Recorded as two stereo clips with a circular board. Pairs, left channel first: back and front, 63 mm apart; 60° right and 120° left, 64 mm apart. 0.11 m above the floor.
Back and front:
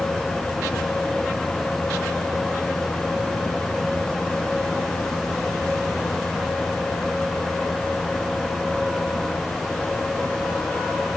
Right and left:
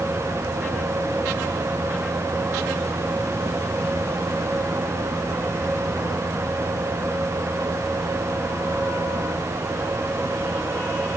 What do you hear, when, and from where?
Only background noise.